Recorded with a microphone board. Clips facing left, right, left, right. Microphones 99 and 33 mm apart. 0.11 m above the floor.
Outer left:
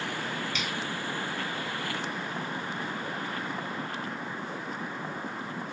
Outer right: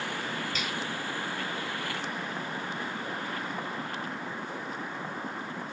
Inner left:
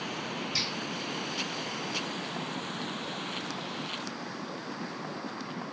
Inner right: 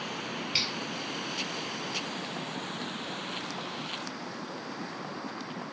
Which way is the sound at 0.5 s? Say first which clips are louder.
Even, inner right 3 dB; 40° right (ahead or behind).